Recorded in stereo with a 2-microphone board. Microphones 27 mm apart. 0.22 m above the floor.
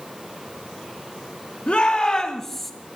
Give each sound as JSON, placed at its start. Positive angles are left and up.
{"t": 1.7, "sound": "a shout", "side_deg": 50, "distance_m": 2.0}